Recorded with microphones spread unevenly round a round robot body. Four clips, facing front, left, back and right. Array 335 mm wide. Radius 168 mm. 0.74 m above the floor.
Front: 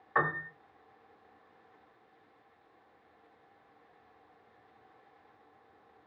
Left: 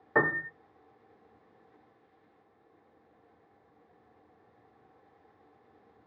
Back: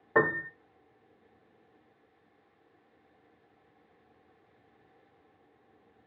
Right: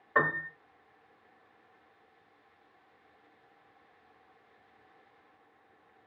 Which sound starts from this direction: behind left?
A piano, at 0.1 s.